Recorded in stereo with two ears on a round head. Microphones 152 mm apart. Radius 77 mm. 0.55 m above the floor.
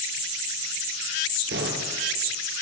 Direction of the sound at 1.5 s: 70° right (ahead or behind).